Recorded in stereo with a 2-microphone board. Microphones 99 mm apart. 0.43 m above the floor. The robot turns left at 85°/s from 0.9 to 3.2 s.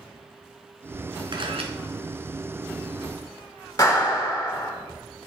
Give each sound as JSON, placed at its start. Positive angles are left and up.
{"t": 1.3, "sound": "a camera shutter", "azimuth_deg": -55, "distance_m": 1.3}
{"t": 3.8, "sound": "a clap", "side_deg": 35, "distance_m": 2.0}